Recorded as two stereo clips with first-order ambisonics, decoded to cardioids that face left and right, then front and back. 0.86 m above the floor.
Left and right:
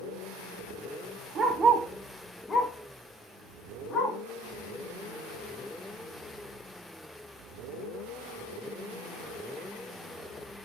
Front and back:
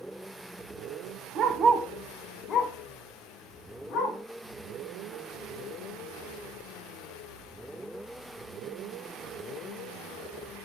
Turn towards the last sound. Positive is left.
turn(degrees=25)